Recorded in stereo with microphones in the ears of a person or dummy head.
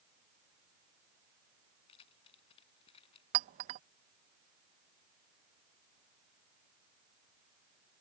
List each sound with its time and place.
1.9 s keys jangling: 30° left (ahead or behind)
3.3 s a clink: 30° right (ahead or behind)